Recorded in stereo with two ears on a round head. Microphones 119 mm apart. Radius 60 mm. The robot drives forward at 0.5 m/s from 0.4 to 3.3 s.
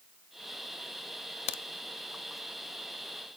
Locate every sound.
1.5 s a crack: 45° left (ahead or behind), 0.5 m; by 1.6 s 55° left (ahead or behind), 0.5 m